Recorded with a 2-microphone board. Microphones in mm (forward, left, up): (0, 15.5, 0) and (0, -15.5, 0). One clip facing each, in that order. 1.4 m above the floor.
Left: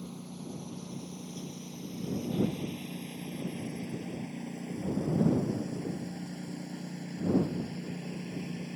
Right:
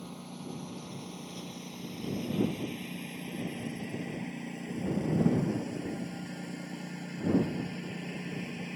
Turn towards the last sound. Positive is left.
turn(degrees=-80)